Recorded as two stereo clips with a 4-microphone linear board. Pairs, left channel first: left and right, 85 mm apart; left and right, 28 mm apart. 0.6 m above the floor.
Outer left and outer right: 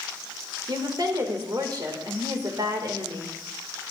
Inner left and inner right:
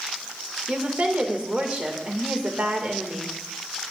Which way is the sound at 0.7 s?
55° right (ahead or behind).